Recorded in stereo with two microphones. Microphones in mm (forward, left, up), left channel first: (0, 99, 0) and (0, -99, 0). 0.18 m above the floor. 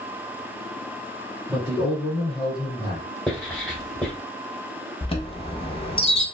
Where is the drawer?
I don't hear a drawer.